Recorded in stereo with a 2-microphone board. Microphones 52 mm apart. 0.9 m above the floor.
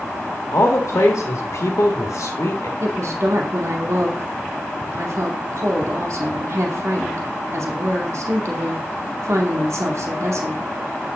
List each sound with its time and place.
0.5 s a man speaking: 75° left (ahead or behind), 1.4 m
2.8 s a woman speaking: 70° right (ahead or behind), 2 m